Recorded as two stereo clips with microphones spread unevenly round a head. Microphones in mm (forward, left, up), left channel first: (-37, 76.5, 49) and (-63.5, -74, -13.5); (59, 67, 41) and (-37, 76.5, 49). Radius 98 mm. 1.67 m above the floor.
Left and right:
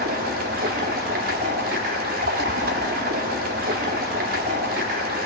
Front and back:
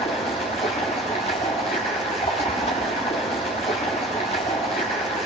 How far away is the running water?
About 1.5 m.